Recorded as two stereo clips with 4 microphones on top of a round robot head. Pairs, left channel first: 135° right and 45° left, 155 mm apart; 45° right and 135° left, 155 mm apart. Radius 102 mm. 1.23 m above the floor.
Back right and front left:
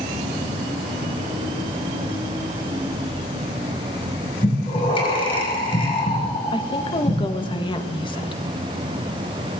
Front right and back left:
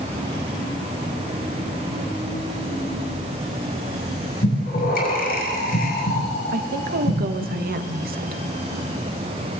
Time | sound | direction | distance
4.4 | breathing | 80° right | 6 m
6.5 | a woman speaking | 165° left | 1.5 m